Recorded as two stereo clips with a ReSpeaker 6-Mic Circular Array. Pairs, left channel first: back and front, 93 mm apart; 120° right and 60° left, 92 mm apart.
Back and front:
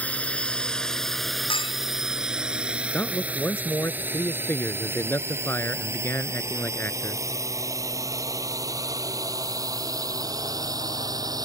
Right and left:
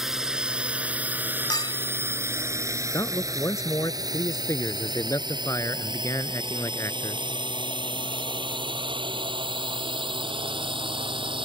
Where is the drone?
135° left; by 11.5 s 45° left.